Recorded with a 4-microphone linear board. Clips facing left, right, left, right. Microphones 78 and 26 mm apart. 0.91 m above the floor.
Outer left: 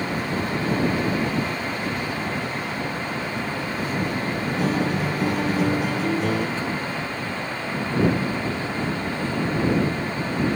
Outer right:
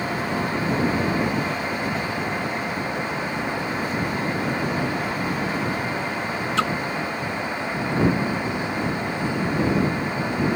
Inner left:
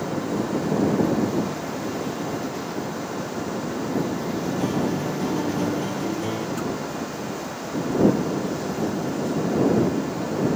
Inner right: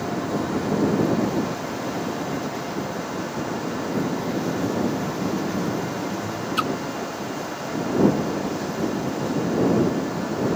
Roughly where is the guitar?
Left.